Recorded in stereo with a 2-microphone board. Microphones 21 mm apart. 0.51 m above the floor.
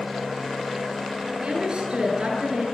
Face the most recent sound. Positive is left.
turn(degrees=-40)  # may be behind; listen again after turning